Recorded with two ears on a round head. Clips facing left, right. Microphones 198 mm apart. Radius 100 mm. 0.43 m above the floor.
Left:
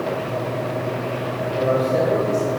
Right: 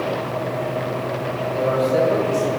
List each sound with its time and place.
1.5 s a man speaking: 10° right (ahead or behind), 2.5 m